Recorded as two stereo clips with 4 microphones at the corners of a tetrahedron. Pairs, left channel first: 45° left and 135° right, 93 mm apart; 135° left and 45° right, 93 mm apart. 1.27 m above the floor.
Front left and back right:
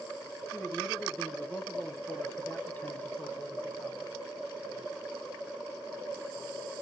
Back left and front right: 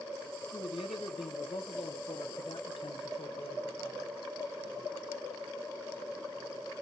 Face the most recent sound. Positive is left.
turn(degrees=115)